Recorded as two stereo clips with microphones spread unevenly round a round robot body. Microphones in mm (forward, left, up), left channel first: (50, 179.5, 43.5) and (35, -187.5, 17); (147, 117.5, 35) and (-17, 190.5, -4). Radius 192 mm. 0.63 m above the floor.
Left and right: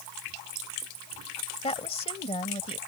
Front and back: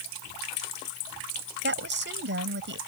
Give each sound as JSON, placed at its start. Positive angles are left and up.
{"t": 1.6, "sound": "a woman speaking", "azimuth_deg": 165}